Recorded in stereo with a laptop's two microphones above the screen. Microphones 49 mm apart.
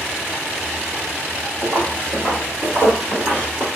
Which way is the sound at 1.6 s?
55° right (ahead or behind).